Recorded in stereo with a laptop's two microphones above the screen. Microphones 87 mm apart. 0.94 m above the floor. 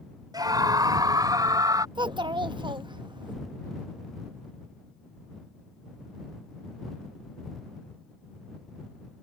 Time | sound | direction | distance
0.3 | a scream | 50° right (ahead or behind) | ?
1.9 | a child speaking | 65° right (ahead or behind) | ?